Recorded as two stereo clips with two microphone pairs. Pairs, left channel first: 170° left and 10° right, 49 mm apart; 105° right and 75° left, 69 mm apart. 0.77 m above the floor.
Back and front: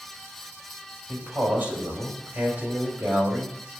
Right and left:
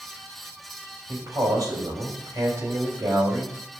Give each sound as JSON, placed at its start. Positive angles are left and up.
{"t": 1.1, "sound": "a man speaking", "azimuth_deg": 40, "distance_m": 4.5}